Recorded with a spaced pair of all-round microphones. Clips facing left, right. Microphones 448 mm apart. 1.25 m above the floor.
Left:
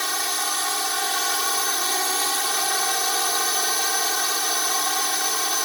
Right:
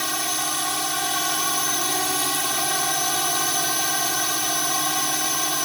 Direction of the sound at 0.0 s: 50° right (ahead or behind).